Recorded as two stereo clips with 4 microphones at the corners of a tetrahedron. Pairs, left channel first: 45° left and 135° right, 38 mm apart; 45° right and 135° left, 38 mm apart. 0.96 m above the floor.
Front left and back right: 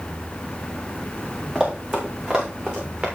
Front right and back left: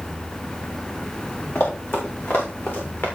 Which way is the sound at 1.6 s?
45° right.